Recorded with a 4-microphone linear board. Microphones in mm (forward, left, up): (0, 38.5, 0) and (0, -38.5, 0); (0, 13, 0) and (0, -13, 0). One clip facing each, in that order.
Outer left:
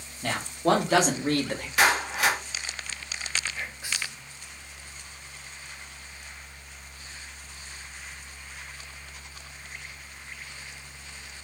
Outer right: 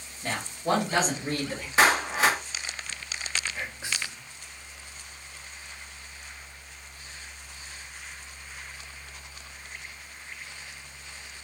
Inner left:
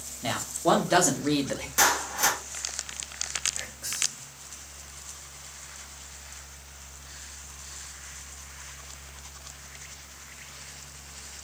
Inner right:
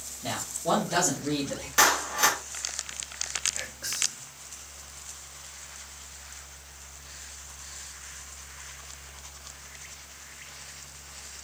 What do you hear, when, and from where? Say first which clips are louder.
0.2 s a man speaking: outer left 4 dB, inner left 5 dB; 70° left (ahead or behind), 1.3 m; by 1.7 s 50° left (ahead or behind), 0.8 m
1.8 s a clap: outer right 2 dB, inner right 2 dB; 25° right (ahead or behind), 1.1 m
3.5 s whispering: outer right 1 dB, inner right 1 dB; 25° right (ahead or behind), 1.2 m